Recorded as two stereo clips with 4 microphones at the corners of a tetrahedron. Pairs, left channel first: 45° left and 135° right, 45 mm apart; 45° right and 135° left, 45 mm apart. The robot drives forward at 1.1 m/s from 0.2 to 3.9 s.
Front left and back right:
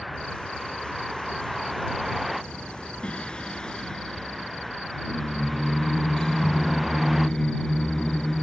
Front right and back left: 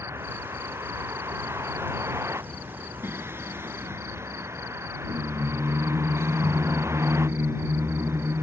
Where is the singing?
110° left; by 8.4 s 120° left.